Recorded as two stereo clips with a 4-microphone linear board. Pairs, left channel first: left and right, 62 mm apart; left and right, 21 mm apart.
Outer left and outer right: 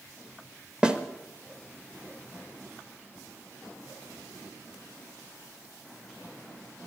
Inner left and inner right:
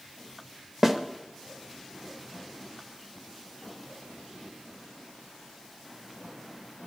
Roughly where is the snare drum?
Centre.